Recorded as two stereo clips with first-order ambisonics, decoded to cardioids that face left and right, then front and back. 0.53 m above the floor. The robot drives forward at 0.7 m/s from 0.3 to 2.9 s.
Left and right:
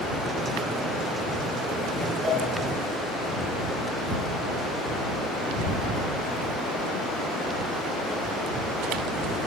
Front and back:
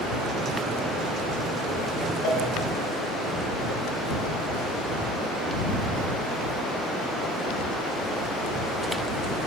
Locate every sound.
2.2 s a cowbell: 20° right, 9 m